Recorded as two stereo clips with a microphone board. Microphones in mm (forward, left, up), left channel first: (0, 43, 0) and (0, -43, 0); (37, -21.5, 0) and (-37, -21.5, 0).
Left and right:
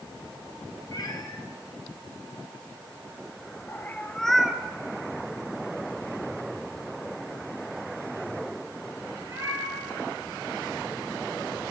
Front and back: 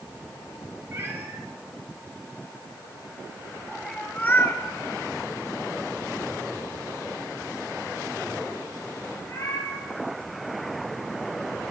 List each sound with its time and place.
0.9 s a cat meowing: 125° left, 1.9 m; by 11.6 s 45° right, 4.5 m